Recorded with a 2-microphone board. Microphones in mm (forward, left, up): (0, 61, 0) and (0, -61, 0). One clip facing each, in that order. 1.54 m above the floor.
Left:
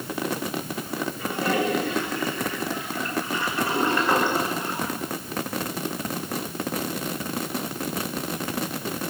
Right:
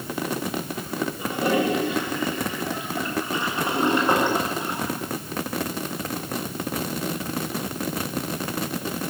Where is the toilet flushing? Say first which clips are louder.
Right 2 dB; 20° right (ahead or behind), 9 m.